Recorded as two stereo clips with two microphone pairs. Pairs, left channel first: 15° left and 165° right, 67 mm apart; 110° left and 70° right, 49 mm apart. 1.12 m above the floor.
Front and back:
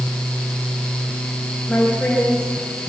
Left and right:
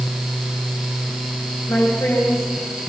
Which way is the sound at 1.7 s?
95° left.